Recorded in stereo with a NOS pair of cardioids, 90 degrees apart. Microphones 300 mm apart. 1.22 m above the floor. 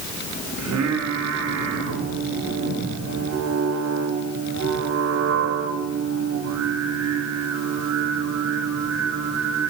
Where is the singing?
65° right, 3 m.